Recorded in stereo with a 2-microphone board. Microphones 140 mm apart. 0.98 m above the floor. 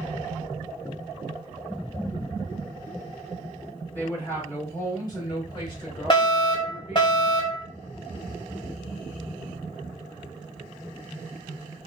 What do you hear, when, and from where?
4.0 s a woman speaking: 15° left (ahead or behind), 2.5 m; by 7.1 s 55° left (ahead or behind), 2.5 m
6.1 s a fire alarm: 30° left (ahead or behind), 1.4 m